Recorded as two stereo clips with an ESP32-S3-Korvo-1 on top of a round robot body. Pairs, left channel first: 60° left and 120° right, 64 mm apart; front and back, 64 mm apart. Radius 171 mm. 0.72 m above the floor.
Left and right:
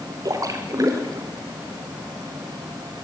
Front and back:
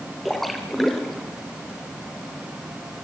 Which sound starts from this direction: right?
A splash, at 0.2 s.